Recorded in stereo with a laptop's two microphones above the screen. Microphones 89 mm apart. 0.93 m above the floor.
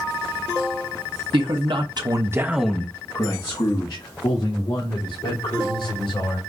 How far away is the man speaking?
About 1.2 m.